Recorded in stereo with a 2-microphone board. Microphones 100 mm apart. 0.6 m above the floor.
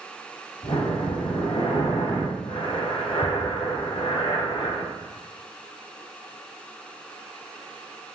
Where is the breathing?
70° left (ahead or behind), 1.1 m.